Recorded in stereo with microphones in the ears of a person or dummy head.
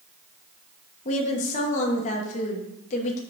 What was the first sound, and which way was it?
A woman speaking, 45° left (ahead or behind).